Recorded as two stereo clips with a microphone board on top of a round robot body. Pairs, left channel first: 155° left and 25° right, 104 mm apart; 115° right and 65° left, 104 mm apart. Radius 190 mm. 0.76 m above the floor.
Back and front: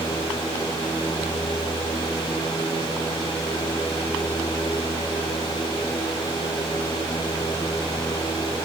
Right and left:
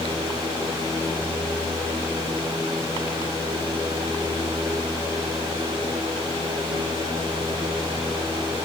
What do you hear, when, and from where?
Only background noise.